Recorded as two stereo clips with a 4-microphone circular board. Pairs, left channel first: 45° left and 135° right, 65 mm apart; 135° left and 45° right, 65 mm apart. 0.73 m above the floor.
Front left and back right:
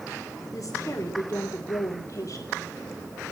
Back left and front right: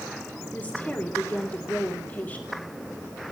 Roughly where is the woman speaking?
Left.